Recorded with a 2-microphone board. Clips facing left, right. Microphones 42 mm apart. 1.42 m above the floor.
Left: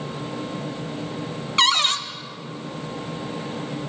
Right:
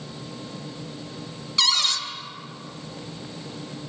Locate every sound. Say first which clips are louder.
1.6 s a cupboard door: left 4 dB; 35° left (ahead or behind), 0.7 m